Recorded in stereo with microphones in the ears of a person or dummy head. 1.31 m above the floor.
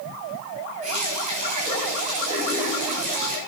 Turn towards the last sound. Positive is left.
turn(degrees=-40)  # may be behind; listen again after turning